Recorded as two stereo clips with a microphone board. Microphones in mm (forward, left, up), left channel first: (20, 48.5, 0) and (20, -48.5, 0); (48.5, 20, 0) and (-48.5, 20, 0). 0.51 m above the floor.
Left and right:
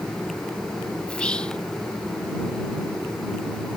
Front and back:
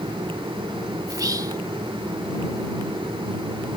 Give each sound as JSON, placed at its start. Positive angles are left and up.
{"t": 1.1, "sound": "whispering", "azimuth_deg": 165}